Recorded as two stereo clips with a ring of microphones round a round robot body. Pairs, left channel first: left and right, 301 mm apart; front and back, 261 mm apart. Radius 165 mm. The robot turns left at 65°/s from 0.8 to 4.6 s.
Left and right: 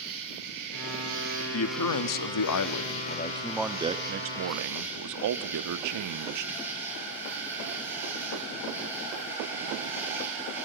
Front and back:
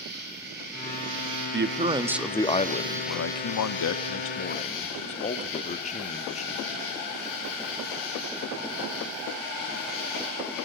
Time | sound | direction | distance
0.0 | an insect | 120° right | 7 m
1.5 | a man speaking | 135° left | 1.2 m